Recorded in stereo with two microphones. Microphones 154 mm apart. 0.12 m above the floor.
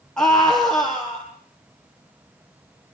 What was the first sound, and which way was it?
A scream, 5° left (ahead or behind).